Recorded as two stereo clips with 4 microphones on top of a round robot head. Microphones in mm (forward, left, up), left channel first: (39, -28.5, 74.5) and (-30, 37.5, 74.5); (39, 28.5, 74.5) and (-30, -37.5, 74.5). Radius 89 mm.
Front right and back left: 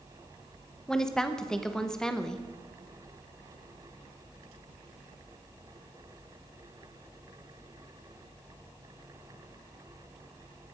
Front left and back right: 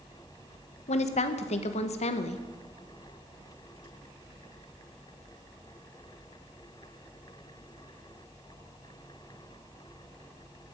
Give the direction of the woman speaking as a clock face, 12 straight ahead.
11 o'clock.